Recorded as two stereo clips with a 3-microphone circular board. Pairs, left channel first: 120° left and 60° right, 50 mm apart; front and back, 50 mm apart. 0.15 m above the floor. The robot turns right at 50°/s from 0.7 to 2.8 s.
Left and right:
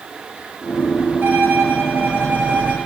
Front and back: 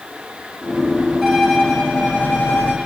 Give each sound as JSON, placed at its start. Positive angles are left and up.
{"t": 1.2, "sound": "a violin", "azimuth_deg": -100, "distance_m": 2.0}